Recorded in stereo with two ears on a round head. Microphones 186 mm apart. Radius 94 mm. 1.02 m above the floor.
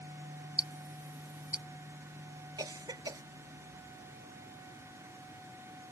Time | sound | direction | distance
0.6 | ticking | 5° right (ahead or behind) | ?
2.6 | a cough | 20° right (ahead or behind) | ?